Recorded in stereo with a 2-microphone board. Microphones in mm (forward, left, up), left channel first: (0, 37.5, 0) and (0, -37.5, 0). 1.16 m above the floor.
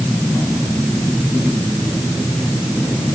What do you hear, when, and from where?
Only background noise.